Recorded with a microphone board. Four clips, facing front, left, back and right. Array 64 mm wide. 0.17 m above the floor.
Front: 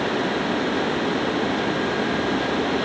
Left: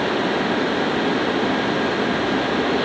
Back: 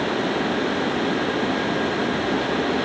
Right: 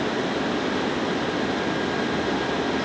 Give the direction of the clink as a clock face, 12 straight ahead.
I don't hear a clink.